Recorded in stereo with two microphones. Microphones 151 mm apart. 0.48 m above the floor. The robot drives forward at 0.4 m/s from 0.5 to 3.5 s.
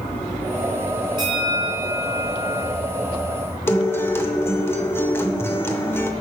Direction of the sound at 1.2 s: 30° right (ahead or behind).